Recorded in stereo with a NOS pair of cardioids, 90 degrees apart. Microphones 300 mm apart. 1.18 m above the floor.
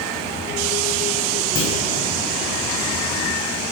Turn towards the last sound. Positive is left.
turn(degrees=40)